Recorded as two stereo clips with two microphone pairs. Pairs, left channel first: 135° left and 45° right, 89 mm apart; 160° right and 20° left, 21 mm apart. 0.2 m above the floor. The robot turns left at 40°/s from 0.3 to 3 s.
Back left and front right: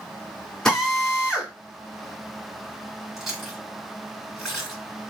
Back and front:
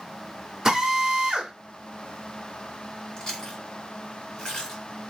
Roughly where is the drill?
Ahead left.